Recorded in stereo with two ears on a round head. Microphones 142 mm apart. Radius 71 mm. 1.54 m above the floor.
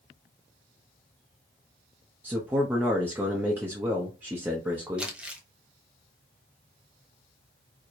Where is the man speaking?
15° right (ahead or behind), 0.8 m.